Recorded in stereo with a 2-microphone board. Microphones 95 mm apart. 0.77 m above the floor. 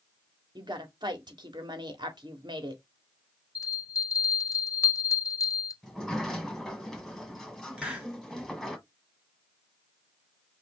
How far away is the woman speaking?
About 1.7 m.